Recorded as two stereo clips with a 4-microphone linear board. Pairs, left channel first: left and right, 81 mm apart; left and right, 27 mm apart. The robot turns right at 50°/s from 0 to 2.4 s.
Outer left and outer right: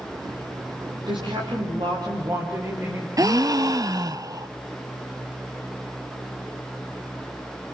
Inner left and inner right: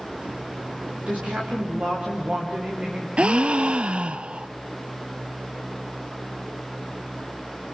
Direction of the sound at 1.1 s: 105° right.